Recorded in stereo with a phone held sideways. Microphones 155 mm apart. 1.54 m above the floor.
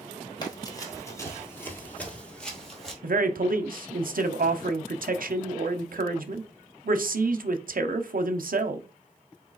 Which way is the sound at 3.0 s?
70° right (ahead or behind).